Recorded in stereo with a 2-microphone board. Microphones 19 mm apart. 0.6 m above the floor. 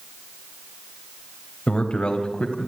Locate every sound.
1.7 s a man speaking: 65° left (ahead or behind), 3 m; by 2.7 s 70° left (ahead or behind), 4.5 m